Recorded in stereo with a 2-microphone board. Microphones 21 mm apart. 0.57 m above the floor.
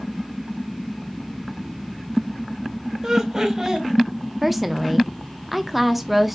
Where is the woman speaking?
5° right (ahead or behind), 0.6 m.